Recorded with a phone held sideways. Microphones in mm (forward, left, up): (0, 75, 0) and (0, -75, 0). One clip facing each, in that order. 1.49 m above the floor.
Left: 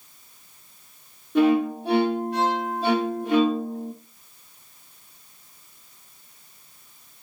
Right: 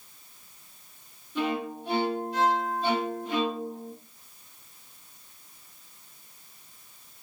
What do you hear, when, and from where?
1.4 s a violin: 70° left (ahead or behind), 2 m